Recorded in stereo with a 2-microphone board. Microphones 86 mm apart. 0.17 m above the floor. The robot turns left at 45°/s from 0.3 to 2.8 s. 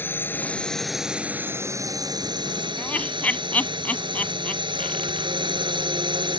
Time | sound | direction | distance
0.0 | a drone | 25° left | ?
2.8 | laughter | 20° left (ahead or behind) | ?